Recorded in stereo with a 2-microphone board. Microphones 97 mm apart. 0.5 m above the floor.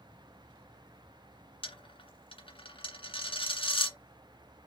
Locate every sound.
1.6 s a dropped coin: 60° left (ahead or behind), 0.7 m